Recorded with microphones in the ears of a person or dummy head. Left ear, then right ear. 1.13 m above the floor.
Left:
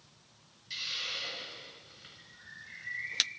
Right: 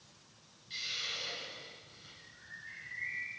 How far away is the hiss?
About 2 m.